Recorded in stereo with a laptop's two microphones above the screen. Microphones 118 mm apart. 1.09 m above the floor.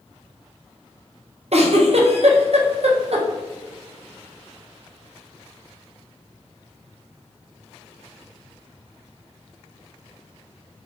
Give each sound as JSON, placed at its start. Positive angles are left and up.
{"t": 1.5, "sound": "a giggle", "side_deg": -65, "distance_m": 0.6}